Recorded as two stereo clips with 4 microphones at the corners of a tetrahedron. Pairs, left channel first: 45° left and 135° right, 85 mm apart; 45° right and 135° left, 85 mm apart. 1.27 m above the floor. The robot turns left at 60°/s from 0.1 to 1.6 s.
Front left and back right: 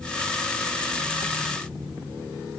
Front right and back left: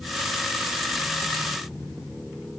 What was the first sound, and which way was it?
Only background noise.